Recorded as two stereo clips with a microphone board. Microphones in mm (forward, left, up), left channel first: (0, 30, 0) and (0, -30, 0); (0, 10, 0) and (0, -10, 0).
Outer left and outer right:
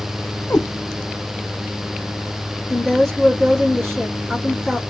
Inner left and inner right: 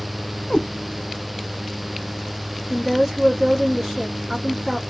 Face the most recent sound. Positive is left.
turn(degrees=0)  # may be behind; listen again after turning